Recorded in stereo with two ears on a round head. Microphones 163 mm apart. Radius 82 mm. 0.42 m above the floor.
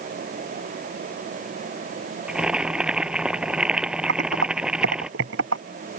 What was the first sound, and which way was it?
Boiling, 5° right (ahead or behind).